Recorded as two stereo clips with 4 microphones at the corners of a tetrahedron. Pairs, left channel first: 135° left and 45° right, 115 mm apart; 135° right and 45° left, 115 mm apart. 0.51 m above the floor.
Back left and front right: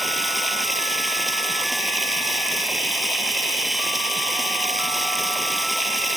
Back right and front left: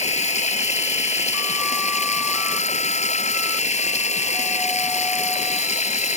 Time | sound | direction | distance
0.0 | running water | 135° right | ?